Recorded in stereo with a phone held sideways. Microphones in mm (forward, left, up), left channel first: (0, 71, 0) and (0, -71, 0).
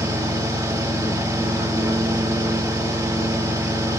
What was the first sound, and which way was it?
A fan, 20° right (ahead or behind).